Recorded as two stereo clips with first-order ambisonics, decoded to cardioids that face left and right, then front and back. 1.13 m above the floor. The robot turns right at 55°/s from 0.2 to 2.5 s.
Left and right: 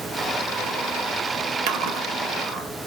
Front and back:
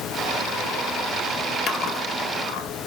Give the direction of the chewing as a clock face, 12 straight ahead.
2 o'clock.